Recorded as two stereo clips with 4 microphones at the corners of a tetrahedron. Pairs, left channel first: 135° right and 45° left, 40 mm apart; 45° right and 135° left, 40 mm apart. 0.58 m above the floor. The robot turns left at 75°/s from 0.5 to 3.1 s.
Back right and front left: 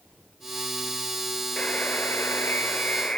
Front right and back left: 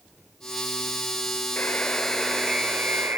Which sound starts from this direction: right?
A buzzer, at 1.6 s.